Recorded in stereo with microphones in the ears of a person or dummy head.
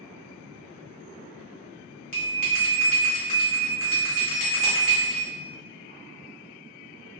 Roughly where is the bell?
Left.